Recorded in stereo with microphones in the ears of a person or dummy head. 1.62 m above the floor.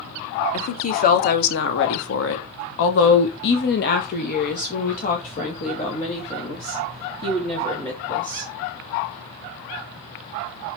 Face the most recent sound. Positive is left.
turn(degrees=25)  # may be behind; listen again after turning